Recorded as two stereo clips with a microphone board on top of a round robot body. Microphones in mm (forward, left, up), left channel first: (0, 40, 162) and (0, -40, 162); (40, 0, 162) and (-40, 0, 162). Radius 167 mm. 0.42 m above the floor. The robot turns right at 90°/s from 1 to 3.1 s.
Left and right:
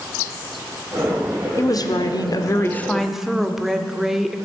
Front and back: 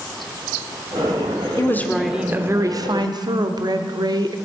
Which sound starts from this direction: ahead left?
A woman speaking, at 1.6 s.